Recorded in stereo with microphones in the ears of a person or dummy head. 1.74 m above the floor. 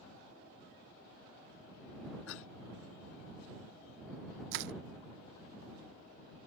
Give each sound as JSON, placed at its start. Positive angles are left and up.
{"t": 2.3, "sound": "a cough", "side_deg": 75}
{"t": 4.5, "sound": "crushing", "side_deg": -65}